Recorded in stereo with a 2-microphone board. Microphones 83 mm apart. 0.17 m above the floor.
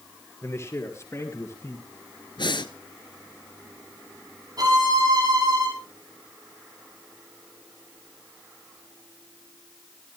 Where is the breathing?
65° left (ahead or behind), 1.1 m.